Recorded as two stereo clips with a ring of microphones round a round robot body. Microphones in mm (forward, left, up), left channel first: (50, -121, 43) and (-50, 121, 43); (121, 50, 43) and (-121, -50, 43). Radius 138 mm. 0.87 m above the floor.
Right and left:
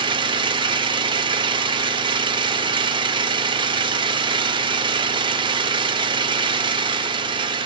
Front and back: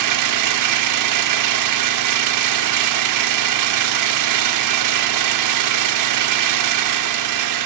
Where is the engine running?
175° right, 0.7 m.